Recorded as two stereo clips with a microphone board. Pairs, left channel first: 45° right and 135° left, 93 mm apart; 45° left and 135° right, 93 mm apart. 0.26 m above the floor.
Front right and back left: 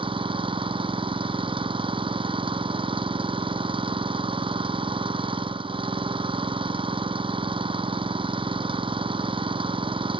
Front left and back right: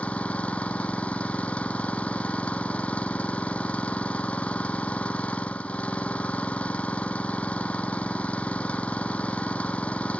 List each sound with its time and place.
0.0 s an engine running: 120° left